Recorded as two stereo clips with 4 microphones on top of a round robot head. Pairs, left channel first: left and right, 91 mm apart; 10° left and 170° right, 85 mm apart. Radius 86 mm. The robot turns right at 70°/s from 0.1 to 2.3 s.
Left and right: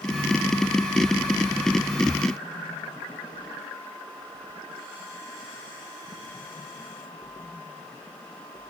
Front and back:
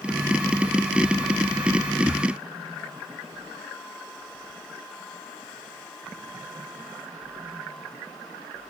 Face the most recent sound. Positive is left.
No sound to turn to.